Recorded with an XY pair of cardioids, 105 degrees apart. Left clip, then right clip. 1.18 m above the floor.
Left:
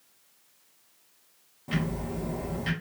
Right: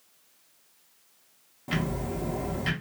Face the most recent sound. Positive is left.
turn(degrees=-25)